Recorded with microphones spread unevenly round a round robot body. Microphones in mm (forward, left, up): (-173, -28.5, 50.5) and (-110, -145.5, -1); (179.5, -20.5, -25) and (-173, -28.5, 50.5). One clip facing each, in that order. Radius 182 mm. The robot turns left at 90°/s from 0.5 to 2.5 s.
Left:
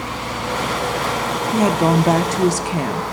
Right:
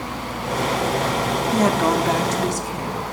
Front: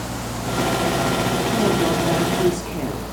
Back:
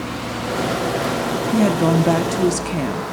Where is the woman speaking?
130° right, 0.9 m; by 3.0 s 140° left, 0.9 m.